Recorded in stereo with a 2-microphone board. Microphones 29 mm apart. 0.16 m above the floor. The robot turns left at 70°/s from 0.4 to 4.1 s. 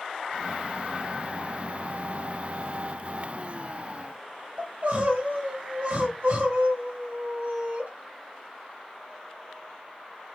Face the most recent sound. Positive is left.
turn(degrees=-55)  # may be behind; listen again after turning